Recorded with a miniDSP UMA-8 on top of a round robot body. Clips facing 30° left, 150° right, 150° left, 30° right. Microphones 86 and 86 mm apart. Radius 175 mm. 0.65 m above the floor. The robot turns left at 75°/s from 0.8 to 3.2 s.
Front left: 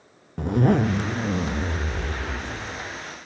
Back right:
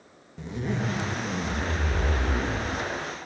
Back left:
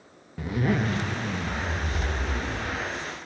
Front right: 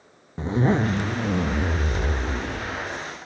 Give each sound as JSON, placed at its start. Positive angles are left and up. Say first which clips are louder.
{"t": 0.4, "sound": "a zipper", "louder": "front left 10 dB, front right 4 dB", "azimuth_deg": 25, "distance_m": 0.8}